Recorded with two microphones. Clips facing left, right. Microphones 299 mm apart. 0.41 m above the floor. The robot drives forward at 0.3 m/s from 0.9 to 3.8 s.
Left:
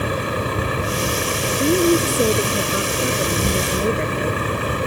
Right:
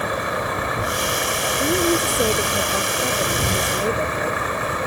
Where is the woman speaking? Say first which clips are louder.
Left 4 dB; 20° left (ahead or behind).